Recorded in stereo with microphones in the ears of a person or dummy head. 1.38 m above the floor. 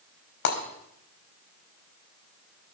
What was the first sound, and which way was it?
Breaking glass, 55° left (ahead or behind).